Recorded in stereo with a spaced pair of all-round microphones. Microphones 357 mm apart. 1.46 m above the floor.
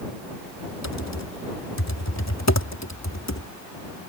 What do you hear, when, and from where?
0.8 s typing on a keyboard: 50° left (ahead or behind)